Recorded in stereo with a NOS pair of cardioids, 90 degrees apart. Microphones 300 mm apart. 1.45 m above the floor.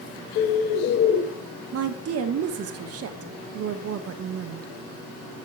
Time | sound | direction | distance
0.3 | a bird | 50° left | 0.9 m
1.7 | a woman speaking | 55° right | 0.7 m